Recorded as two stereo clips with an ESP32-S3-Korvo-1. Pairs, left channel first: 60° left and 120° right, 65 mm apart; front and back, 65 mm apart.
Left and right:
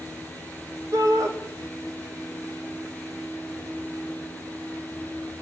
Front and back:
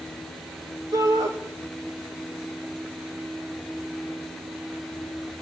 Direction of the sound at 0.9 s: 150° right.